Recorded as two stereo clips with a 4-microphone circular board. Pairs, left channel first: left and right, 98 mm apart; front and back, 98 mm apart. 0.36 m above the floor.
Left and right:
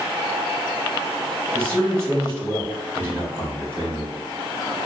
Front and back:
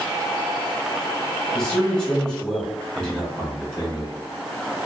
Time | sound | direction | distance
1.5 | a man speaking | 75° right | 1.2 m